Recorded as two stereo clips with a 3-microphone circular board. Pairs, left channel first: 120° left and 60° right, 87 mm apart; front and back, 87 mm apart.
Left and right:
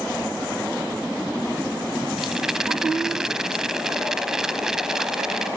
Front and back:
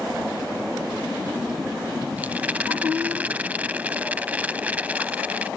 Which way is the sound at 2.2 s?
135° right.